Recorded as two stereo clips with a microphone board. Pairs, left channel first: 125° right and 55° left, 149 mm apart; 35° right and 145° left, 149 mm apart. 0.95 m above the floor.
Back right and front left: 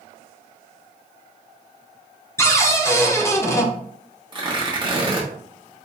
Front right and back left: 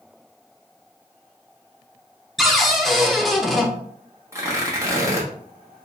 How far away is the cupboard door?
About 0.6 m.